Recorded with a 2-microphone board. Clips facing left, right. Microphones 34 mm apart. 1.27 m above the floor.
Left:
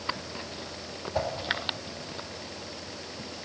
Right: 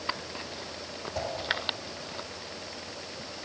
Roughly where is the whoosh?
Left.